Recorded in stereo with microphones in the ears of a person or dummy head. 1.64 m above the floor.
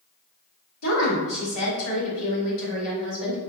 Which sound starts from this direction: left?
A woman speaking, at 0.8 s.